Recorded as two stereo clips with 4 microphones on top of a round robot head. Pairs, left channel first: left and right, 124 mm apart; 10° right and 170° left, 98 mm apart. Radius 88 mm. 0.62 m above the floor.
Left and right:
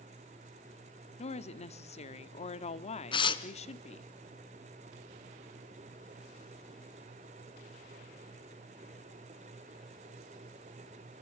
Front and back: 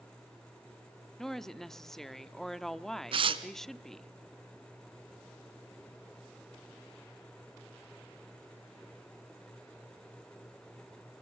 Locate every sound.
1.2 s a woman speaking: 75° left, 1.4 m
3.1 s tearing paper: 140° left, 1.6 m